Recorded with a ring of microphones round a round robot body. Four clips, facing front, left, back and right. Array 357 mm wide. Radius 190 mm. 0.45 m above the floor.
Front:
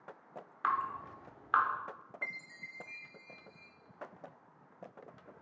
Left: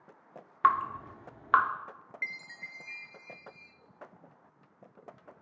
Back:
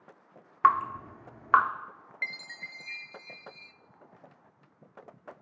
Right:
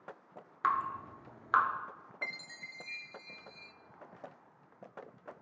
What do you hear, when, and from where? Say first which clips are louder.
0.6 s dripping: left 6 dB, back 10 dB; 150° left, 1.0 m
2.2 s a chime: left 1 dB, back 7 dB; 175° right, 0.5 m